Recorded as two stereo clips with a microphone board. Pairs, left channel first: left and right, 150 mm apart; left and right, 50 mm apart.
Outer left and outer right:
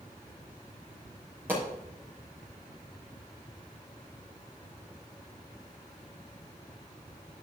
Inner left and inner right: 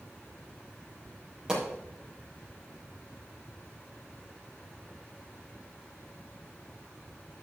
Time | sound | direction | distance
1.5 | a pop | 15° right (ahead or behind) | 6 m